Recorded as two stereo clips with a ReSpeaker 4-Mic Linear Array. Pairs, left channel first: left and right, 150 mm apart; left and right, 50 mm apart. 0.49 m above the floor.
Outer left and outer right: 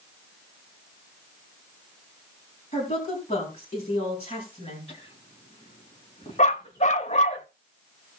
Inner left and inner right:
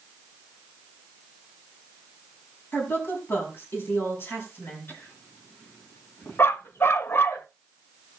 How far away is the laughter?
About 4 m.